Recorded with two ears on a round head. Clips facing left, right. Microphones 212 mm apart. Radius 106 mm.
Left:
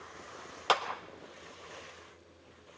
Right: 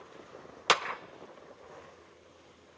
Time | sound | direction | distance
0.7 | a clap | 30° right (ahead or behind) | 0.7 m